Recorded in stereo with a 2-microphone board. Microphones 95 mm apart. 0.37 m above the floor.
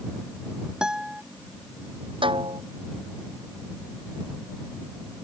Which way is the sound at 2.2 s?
65° right (ahead or behind).